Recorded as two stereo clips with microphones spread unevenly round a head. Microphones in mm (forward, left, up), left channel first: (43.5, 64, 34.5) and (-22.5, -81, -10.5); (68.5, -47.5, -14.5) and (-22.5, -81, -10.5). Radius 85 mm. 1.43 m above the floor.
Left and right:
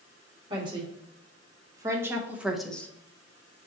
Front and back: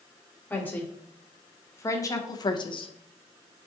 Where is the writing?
I don't hear writing.